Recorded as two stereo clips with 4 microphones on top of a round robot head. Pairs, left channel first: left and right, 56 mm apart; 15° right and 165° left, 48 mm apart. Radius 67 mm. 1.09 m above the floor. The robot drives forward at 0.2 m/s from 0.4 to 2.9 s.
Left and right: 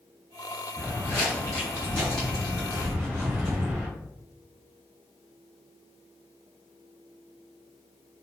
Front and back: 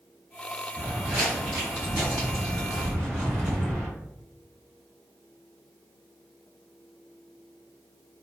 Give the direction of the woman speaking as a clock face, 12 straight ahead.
I don't hear a woman speaking.